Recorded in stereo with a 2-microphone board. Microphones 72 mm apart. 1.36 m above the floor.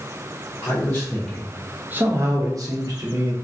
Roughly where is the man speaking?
Left.